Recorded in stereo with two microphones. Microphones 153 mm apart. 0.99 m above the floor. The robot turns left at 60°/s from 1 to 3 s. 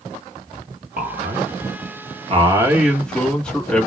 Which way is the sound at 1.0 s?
65° right.